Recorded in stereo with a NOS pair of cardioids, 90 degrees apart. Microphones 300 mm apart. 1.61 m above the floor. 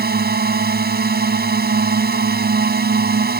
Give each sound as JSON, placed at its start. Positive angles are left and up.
{"t": 0.0, "sound": "a drone", "azimuth_deg": -30}